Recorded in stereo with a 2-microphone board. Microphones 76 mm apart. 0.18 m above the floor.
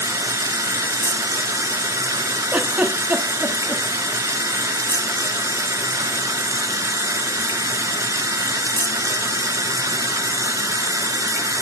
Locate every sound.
0.0 s running water: 45° right (ahead or behind), 0.8 m
2.5 s a giggle: 20° right (ahead or behind), 1.2 m